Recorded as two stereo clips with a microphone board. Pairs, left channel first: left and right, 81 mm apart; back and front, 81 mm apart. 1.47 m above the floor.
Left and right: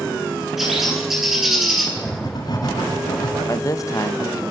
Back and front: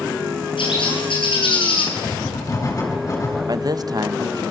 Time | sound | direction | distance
0.6 | a bird | straight behind | 9 m
2.0 | writing | 130° left | 7 m
3.5 | a man speaking | 40° left | 1.5 m